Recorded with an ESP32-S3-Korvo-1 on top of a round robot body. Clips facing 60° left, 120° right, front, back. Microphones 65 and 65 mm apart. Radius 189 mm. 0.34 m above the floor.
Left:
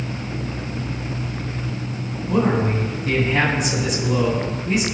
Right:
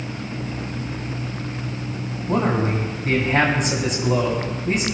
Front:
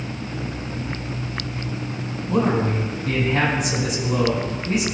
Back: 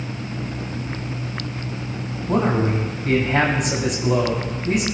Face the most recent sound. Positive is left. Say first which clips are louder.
# left 1 dB, back 1 dB
turn(degrees=-160)